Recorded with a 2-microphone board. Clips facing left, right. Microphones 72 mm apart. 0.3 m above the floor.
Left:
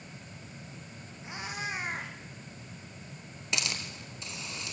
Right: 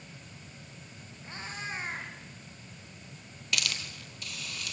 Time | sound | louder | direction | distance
1.2 | a cat meowing | left 2 dB | 15° left (ahead or behind) | 5 m
3.5 | a hiss | even | 20° left (ahead or behind) | 2 m